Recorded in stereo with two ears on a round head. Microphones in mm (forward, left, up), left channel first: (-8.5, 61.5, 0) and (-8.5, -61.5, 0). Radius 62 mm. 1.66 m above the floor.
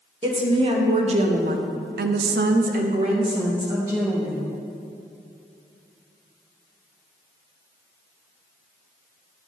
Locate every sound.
0.2 s a woman speaking: 35° right (ahead or behind), 1.6 m; by 4.5 s 15° right (ahead or behind), 1.6 m